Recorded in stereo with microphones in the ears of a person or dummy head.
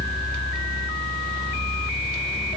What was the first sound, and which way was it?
Only background noise.